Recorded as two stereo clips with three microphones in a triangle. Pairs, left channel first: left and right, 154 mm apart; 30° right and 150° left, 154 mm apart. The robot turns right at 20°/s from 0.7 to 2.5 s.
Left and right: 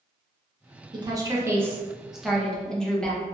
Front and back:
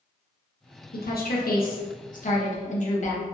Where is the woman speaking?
25° right, 0.9 m; by 3.2 s 5° left, 0.9 m.